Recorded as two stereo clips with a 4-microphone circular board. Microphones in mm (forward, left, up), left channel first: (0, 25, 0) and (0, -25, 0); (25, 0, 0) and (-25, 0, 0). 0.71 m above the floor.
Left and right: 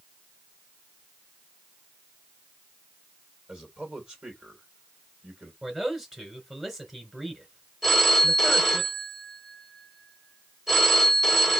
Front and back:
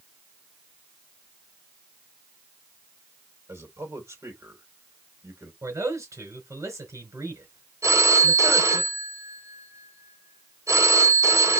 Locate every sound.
3.5 s a man speaking: 160° right, 3 m
5.6 s a man speaking: 175° right, 3.5 m
7.8 s a phone ringing: 170° right, 1.8 m